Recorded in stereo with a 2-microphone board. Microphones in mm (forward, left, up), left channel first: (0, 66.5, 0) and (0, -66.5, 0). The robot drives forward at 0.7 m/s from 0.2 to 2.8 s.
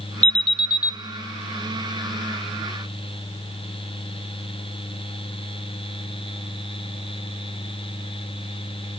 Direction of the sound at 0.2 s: 55° left (ahead or behind).